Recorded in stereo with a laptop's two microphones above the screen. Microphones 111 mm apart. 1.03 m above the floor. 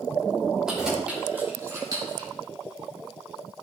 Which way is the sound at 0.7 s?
5° right (ahead or behind).